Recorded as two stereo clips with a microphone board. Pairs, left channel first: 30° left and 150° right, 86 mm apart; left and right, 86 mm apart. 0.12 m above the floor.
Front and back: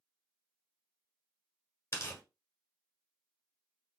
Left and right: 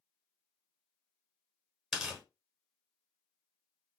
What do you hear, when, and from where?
1.9 s tearing paper: 5° right, 1.1 m